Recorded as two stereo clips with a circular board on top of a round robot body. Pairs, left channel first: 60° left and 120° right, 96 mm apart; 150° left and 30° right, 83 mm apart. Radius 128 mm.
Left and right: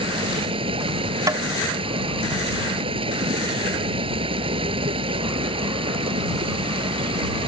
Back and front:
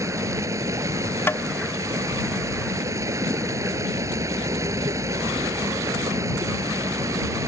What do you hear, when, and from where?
0.0 s running water: 90° right
1.3 s tapping: 160° right